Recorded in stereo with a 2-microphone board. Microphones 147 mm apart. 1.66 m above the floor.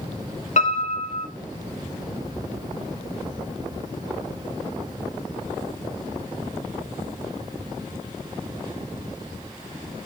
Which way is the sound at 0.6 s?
55° left (ahead or behind).